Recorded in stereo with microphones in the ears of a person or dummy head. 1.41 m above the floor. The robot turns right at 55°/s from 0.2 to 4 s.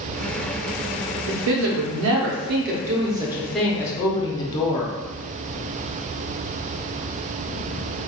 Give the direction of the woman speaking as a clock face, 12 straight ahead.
4 o'clock.